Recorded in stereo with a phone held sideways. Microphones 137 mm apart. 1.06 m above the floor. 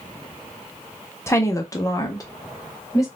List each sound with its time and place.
1.3 s a woman speaking: 20° left (ahead or behind), 0.6 m